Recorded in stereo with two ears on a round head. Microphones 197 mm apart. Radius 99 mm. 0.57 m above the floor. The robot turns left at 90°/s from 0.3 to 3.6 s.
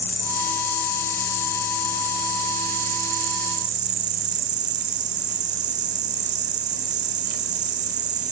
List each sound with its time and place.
0.0 s an insect: 170° left, 1.8 m; by 8.3 s 130° right, 1.8 m